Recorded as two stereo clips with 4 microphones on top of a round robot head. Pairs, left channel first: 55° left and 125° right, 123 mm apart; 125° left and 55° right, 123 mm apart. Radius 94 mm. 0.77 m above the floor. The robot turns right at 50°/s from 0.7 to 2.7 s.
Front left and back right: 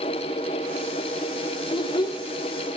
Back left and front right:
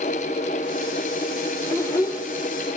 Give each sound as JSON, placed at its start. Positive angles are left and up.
{"t": 1.7, "sound": "a child speaking", "azimuth_deg": 65, "distance_m": 0.6}